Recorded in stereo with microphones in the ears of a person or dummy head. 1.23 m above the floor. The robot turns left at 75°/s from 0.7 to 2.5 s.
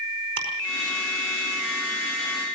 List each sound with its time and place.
0.4 s ticking: 55° right (ahead or behind), 5 m